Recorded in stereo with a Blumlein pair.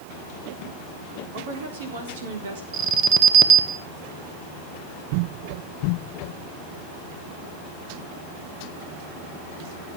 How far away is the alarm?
About 1.4 m.